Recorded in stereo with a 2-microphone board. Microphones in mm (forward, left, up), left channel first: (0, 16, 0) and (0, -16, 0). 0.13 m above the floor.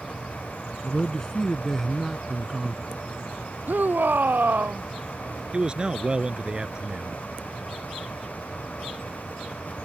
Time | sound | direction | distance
0.8 | a man speaking | 25° left (ahead or behind) | ?
3.7 | a shout | 70° right (ahead or behind) | ?
5.5 | a man speaking | 30° right (ahead or behind) | ?